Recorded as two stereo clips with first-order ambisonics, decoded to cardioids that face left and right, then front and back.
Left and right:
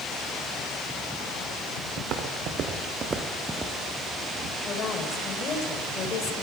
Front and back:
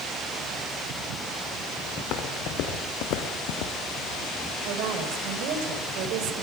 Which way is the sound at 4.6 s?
150° left.